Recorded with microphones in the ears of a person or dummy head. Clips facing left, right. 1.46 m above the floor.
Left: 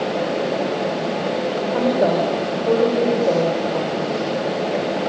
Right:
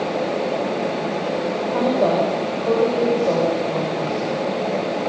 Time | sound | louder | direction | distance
1.6 | a woman speaking | left 1 dB | 5° left (ahead or behind) | 6.5 m